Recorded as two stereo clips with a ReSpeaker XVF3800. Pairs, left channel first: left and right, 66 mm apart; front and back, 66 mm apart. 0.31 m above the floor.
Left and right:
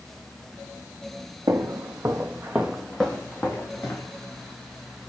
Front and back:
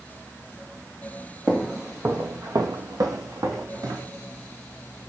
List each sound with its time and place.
1.5 s footsteps: 95° right, 0.9 m; by 4.1 s 145° left, 1.4 m